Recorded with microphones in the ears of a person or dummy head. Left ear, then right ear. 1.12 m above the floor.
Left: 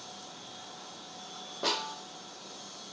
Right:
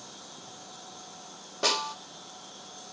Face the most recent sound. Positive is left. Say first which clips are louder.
# right 4 dB
turn(degrees=-65)  # may be behind; listen again after turning